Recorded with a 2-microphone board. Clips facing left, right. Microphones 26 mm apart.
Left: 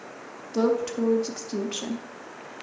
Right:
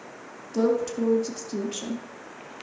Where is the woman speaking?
25° left (ahead or behind), 0.7 m.